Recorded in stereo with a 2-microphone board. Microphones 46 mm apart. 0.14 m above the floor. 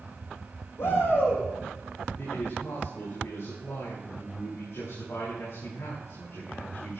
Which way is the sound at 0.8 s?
65° left (ahead or behind).